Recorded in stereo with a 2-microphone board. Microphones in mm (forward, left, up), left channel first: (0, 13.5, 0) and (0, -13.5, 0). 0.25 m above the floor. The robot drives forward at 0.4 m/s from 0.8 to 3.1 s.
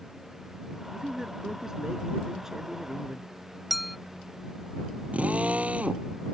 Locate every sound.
0.9 s a man speaking: 20° right (ahead or behind); by 3.3 s 15° right (ahead or behind)
3.7 s a clink: 5° right (ahead or behind)
5.1 s a drill: 60° right (ahead or behind)